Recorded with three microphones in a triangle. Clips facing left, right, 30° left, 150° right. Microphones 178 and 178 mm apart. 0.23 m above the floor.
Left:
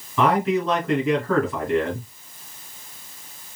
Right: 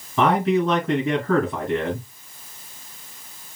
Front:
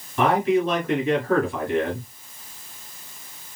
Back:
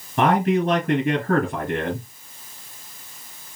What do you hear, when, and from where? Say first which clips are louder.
0.2 s a man speaking: right 1 dB, back 1 dB; 150° right, 2 m